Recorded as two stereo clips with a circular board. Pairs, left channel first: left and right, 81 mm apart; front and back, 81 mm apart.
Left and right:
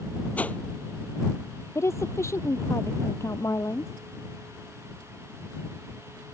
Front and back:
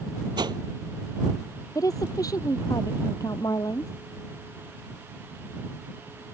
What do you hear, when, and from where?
0.4 s a whoosh: 160° left
1.8 s a woman speaking: 40° left